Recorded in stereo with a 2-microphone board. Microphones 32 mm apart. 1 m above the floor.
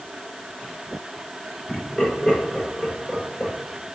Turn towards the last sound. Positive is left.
turn(degrees=10)  # may be behind; listen again after turning